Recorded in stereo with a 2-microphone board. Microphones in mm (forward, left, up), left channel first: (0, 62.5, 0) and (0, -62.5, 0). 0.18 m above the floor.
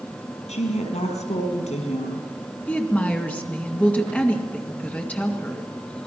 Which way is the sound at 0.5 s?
75° left (ahead or behind).